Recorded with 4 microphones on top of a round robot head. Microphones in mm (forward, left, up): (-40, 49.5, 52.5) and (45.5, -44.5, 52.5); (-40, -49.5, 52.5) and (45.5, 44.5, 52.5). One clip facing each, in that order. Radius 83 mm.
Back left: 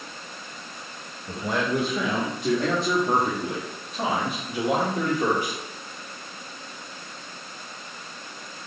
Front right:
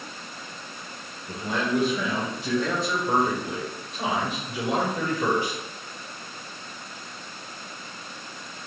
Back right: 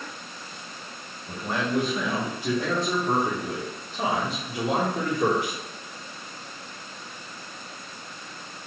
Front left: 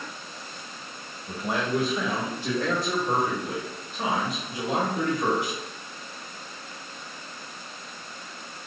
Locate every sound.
1.3 s a man speaking: 120° left, 1.2 m; by 5.6 s 170° right, 2.5 m